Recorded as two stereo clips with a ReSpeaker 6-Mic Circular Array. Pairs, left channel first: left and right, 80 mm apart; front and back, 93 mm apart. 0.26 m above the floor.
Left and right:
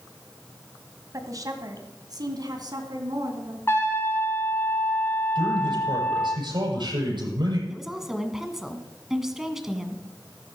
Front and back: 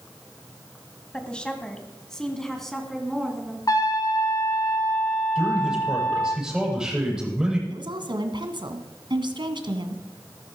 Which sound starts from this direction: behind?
A woman speaking, at 7.7 s.